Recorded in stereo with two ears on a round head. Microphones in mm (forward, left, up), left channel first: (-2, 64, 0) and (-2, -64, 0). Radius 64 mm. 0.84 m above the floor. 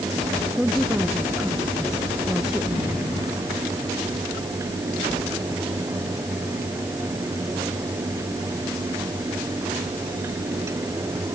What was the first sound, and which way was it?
A woman speaking, 5° right (ahead or behind).